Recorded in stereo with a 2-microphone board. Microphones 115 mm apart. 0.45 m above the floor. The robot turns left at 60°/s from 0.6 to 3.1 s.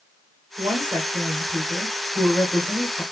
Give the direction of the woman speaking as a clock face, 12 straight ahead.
4 o'clock.